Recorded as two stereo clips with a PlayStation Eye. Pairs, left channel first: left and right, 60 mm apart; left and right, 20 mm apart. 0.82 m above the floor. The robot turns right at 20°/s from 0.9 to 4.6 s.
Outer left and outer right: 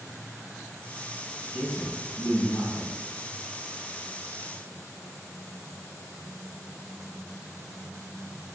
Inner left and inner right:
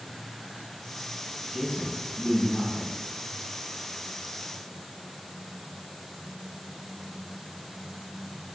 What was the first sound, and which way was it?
A man speaking, 80° left.